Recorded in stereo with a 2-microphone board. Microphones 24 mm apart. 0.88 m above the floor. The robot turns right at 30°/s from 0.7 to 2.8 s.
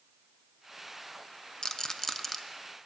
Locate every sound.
1.6 s a rattle: 30° left (ahead or behind), 0.6 m; by 2.4 s 10° left (ahead or behind), 0.6 m